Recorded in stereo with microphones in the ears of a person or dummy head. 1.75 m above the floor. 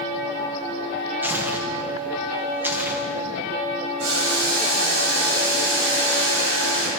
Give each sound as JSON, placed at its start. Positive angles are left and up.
{"t": 1.2, "sound": "tearing paper", "side_deg": -10, "distance_m": 1.3}
{"t": 4.0, "sound": "boiling", "side_deg": -75, "distance_m": 7.5}